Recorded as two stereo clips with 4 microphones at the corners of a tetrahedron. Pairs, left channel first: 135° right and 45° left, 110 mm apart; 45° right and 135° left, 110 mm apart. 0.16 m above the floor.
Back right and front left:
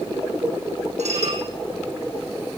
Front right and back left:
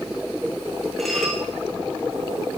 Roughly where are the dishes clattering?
Ahead left.